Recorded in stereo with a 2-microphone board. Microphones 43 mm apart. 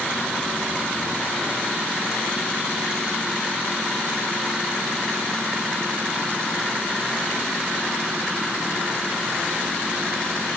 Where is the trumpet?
I don't hear a trumpet.